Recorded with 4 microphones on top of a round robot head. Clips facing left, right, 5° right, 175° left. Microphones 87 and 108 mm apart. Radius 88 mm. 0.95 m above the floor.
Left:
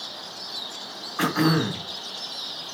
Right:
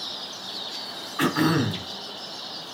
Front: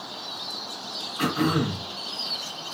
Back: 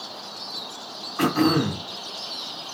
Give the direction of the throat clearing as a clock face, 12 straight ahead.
7 o'clock.